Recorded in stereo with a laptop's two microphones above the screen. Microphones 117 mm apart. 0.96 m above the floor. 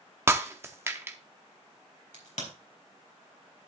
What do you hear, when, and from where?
0.3 s breaking glass: 20° right (ahead or behind), 0.7 m
2.1 s a crack: 85° left, 4 m